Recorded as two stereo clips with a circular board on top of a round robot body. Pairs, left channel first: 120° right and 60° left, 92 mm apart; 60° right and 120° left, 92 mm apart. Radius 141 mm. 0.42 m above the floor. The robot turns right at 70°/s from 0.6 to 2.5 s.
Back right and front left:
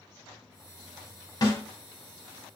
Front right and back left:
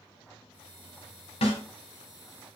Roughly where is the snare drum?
Right.